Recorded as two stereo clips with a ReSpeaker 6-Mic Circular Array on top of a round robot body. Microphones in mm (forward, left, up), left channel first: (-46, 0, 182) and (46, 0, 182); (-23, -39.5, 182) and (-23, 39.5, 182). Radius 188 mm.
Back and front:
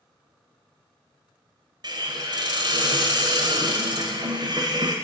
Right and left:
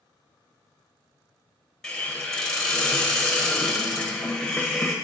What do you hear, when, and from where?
1.8 s a hiss: 10° right, 1.4 m